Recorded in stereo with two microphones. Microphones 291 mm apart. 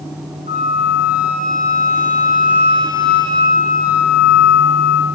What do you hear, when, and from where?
0.5 s a flute: 25° right (ahead or behind), 2.5 m